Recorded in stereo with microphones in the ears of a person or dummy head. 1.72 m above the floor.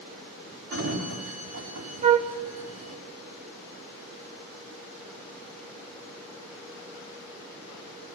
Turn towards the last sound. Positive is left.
turn(degrees=-40)  # may be behind; listen again after turning